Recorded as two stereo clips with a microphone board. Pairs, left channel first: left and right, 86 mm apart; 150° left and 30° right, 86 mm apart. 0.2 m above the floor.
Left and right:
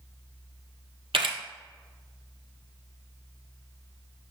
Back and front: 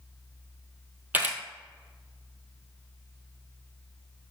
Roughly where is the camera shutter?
Right.